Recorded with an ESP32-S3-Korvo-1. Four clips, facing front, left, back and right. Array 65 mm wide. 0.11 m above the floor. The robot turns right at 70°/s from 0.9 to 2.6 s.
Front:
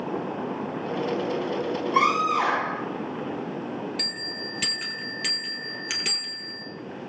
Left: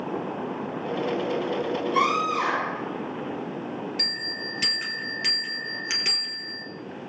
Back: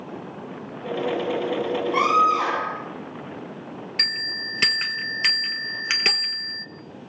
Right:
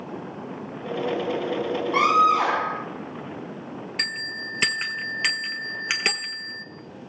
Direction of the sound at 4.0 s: 135° right.